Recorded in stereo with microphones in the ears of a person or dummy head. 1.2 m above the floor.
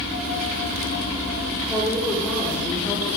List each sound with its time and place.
1.7 s a woman speaking: 10° right (ahead or behind), 2.5 m; by 3.2 s 15° left (ahead or behind), 4 m